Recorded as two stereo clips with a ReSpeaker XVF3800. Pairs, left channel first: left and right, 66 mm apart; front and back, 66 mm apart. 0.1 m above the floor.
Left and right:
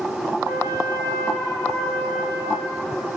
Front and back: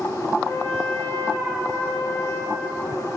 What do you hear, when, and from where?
0.5 s a trumpet: 50° right, 5 m